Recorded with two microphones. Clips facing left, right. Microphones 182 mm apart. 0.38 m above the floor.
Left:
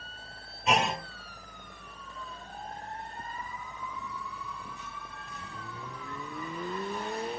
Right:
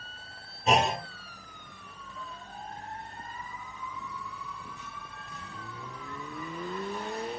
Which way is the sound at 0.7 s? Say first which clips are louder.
Right 3 dB; 35° right (ahead or behind).